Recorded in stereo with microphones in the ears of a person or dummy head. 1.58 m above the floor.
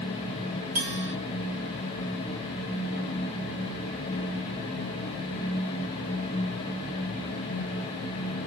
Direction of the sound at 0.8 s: 50° right (ahead or behind).